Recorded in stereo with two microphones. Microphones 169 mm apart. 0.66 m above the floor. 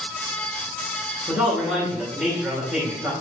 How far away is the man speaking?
About 2.5 m.